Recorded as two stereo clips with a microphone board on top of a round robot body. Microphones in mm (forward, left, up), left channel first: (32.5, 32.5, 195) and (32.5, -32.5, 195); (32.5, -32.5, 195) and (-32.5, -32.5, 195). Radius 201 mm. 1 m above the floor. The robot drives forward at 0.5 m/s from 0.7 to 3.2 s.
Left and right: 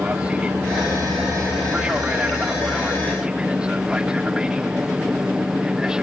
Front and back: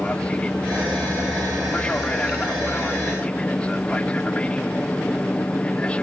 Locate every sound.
0.0 s an aircraft: 45° right; by 6.0 s 30° right